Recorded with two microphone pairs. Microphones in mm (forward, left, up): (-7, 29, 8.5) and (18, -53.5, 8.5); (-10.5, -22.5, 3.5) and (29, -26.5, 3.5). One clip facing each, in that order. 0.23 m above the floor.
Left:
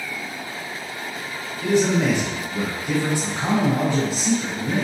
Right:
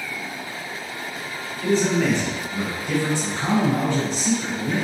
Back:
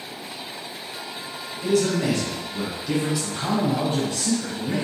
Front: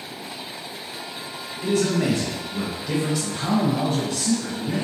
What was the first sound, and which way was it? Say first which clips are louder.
A man speaking: left 1 dB, even; 35° left.